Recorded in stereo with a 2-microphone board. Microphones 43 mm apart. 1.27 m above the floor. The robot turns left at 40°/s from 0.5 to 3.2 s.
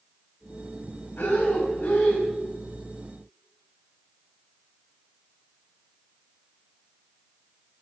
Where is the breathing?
70° left, 3 m; by 2.3 s 25° left, 3 m.